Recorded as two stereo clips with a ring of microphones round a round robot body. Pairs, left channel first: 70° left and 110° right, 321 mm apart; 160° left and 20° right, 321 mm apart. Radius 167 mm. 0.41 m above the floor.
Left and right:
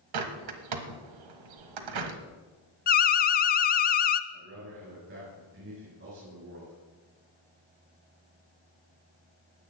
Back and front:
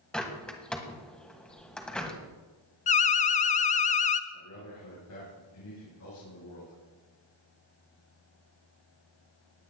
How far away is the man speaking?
About 6 m.